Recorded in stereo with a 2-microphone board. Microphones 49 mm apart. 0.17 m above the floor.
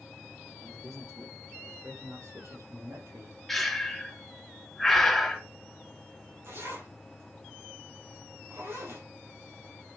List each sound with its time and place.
0.6 s a man speaking: 80° right, 6.5 m; by 3.4 s 75° right (ahead or behind), 4.5 m
3.5 s breathing: 5° left (ahead or behind), 1.6 m
6.4 s a zipper: 55° right (ahead or behind), 6 m